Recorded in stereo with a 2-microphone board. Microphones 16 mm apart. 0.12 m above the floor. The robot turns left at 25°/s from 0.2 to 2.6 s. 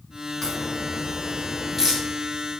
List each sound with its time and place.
0.4 s a crack: 20° left (ahead or behind), 7 m; by 2.0 s 20° right (ahead or behind), 7 m